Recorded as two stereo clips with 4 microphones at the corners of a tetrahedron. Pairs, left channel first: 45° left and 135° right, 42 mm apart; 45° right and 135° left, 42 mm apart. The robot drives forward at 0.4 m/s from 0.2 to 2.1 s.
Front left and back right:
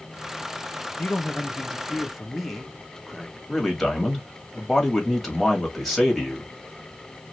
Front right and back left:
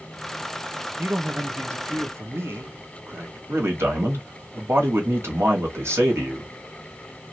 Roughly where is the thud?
No thud in this recording.